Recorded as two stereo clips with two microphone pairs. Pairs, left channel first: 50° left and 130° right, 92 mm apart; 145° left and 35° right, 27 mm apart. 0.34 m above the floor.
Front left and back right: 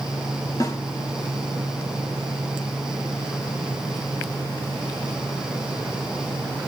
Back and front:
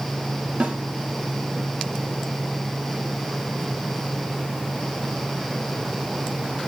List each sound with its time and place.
0.6 s a snare drum: straight ahead, 1.6 m